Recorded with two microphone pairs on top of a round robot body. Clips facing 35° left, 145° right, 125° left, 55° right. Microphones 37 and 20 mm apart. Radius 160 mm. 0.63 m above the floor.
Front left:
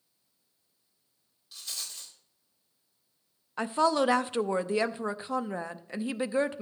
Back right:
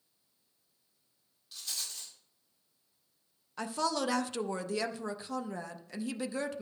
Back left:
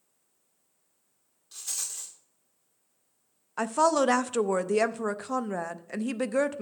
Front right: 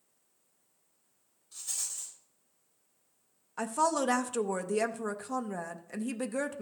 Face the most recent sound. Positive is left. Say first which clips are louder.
# front left 7 dB, back left 5 dB
turn(degrees=95)